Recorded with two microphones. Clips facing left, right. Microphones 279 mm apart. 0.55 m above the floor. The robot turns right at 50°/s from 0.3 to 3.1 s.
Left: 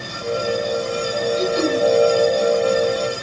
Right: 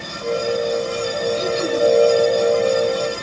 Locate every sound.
1.3 s throat clearing: 55° left (ahead or behind), 9 m; by 1.8 s 80° left, 9 m